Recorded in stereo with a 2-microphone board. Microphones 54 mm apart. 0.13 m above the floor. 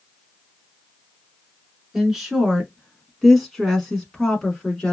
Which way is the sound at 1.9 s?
5° right (ahead or behind).